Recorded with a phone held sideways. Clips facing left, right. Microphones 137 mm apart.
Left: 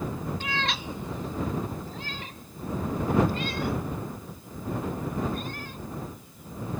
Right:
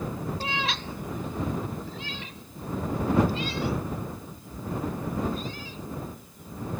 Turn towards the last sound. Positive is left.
turn(degrees=60)  # may be behind; listen again after turning